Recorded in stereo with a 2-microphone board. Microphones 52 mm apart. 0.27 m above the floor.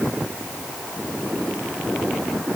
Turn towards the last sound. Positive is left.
No sound to turn to.